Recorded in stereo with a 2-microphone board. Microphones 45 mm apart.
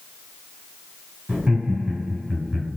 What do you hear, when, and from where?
1.3 s laughter: 30° right (ahead or behind), 1.9 m